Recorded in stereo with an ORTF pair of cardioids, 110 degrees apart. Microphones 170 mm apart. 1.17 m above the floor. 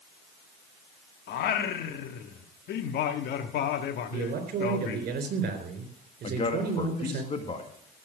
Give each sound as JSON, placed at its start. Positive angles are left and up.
{"t": 1.3, "sound": "singing", "azimuth_deg": 65, "distance_m": 1.4}
{"t": 4.1, "sound": "a man speaking", "azimuth_deg": -55, "distance_m": 4.0}
{"t": 6.2, "sound": "a man speaking", "azimuth_deg": 35, "distance_m": 2.0}